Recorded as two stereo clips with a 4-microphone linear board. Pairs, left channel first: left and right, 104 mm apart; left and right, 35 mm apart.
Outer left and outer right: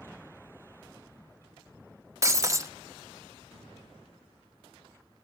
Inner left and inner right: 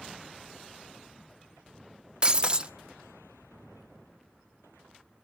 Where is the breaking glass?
30° right (ahead or behind), 0.8 m.